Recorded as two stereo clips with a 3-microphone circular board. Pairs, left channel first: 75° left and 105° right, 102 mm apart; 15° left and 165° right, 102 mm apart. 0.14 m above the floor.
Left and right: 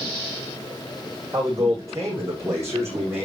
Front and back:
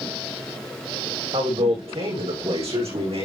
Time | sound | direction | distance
1.3 | a man speaking | 160° right | 8 m